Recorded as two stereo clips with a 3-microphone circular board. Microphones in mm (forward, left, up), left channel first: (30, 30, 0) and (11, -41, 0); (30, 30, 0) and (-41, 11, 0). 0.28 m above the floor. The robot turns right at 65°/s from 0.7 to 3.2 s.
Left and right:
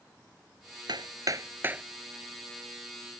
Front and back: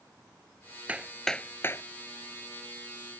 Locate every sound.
0.9 s hammering: 95° right; by 1.8 s 30° right